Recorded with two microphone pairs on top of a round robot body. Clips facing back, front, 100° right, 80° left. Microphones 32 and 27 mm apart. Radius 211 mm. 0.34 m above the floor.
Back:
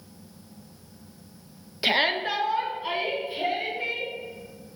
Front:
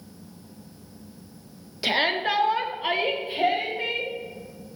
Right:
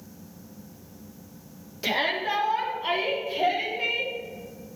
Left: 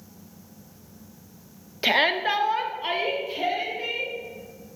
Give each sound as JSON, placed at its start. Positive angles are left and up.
{"t": 1.8, "sound": "a shout", "azimuth_deg": 105, "distance_m": 1.1}